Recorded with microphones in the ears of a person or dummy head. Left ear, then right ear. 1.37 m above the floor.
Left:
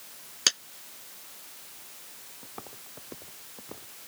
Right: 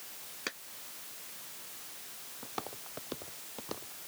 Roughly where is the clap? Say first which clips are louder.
Left 15 dB; left.